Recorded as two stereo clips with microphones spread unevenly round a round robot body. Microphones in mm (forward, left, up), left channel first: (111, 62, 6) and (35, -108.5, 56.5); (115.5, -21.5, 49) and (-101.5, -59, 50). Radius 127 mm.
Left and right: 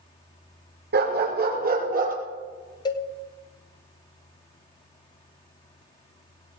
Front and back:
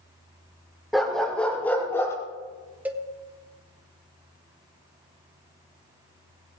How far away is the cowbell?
About 1.3 m.